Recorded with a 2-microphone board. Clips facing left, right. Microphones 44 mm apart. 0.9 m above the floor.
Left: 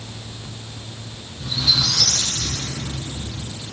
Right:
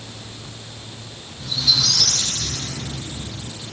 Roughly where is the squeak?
Centre.